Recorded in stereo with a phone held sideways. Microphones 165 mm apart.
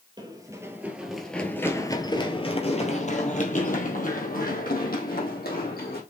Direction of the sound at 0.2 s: 25° right (ahead or behind).